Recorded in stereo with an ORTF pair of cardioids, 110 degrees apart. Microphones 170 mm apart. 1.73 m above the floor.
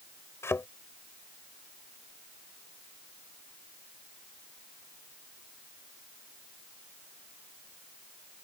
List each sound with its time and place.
0.4 s a thud: 15° left